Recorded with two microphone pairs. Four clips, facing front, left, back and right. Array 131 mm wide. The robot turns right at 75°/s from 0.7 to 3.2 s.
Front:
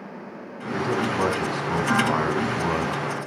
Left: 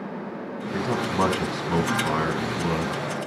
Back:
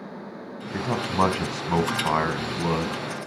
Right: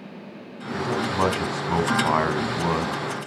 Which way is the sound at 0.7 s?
145° left.